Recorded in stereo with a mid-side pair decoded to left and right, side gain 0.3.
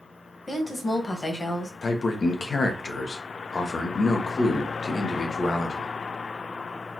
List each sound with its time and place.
0.5 s a woman speaking: 40° left, 1.6 m
1.8 s a man speaking: 55° left, 1.1 m